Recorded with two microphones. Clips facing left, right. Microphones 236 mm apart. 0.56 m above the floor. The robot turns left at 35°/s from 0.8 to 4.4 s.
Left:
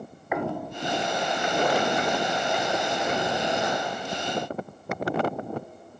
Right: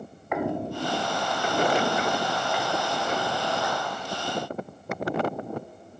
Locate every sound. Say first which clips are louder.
0.3 s footsteps: right 2 dB; 5° left (ahead or behind), 0.5 m; by 3.8 s 40° left (ahead or behind), 5 m